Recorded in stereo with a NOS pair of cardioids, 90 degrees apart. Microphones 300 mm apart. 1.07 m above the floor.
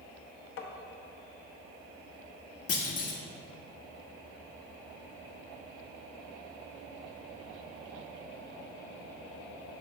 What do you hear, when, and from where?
0.6 s tapping: 45° left, 1.0 m
2.7 s a clunk: 55° left, 1.3 m